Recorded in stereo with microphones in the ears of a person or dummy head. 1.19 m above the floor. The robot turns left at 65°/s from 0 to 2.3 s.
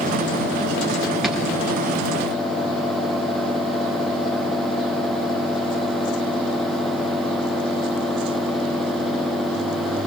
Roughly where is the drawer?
Centre.